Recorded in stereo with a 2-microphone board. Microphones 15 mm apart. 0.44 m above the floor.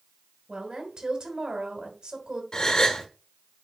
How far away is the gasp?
About 1.4 m.